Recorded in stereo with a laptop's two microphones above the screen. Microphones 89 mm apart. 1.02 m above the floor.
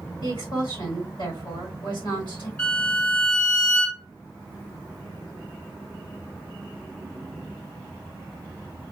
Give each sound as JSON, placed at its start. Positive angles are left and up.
{"t": 0.2, "sound": "a woman speaking", "side_deg": 65, "distance_m": 3.0}
{"t": 2.6, "sound": "a violin", "side_deg": 20, "distance_m": 1.6}